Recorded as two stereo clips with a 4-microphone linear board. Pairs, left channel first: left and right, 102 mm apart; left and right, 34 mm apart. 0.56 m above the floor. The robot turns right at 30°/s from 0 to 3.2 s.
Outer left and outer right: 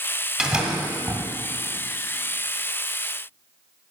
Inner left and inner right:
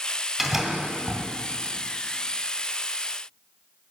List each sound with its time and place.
0.4 s a door slam: 10° right (ahead or behind), 1.6 m; by 1.2 s 35° right (ahead or behind), 1.6 m